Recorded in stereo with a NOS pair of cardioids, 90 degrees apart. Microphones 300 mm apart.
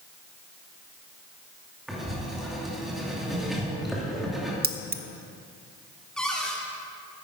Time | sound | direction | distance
1.9 | writing | straight ahead | 3 m
4.6 | keys jangling | 30° right | 0.8 m
6.2 | a cupboard door | 5° left | 2 m